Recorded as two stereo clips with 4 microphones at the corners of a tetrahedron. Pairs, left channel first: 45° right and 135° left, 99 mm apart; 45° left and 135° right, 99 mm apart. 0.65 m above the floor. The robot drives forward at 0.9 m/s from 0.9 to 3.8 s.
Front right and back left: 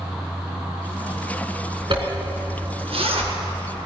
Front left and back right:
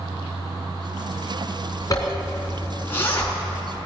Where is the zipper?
100° left, 3 m; by 3.3 s 120° left, 3.5 m.